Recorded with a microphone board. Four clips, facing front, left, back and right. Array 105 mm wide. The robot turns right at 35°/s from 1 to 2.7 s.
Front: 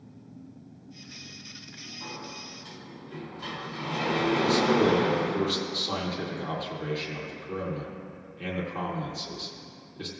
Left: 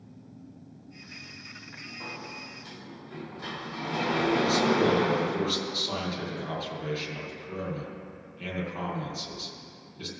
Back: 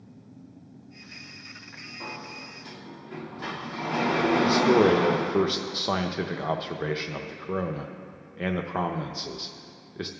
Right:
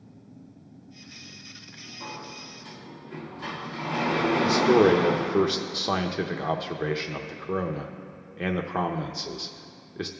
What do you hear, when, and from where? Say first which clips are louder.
2.0 s a sliding door: right 2 dB, back 2 dB; 155° left, 1.5 m; by 5.4 s straight behind, 1.5 m
4.4 s a man speaking: right 8 dB, back 4 dB; 130° right, 0.7 m